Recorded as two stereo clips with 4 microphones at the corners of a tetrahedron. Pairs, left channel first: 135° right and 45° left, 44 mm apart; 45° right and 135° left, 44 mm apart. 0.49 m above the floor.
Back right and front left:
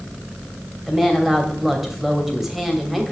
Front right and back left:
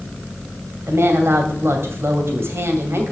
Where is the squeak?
I don't hear a squeak.